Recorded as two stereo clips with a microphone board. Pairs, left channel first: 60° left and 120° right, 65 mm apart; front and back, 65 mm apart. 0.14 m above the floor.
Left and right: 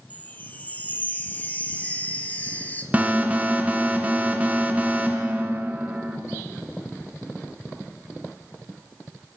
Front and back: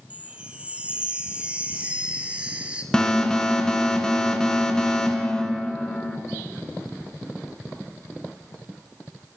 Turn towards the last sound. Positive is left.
turn(degrees=-70)